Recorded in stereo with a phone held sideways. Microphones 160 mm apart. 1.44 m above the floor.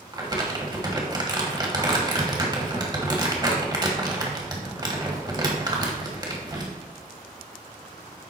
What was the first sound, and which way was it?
Crumpling, 25° right (ahead or behind).